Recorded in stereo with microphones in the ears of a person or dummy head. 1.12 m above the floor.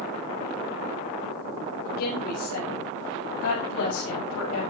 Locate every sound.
1.8 s a woman speaking: 85° left, 7 m